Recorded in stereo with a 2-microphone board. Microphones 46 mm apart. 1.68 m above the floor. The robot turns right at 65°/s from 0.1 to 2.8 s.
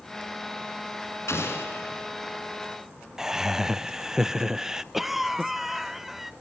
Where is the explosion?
90° left, 5.5 m; by 2.0 s 140° left, 5.5 m.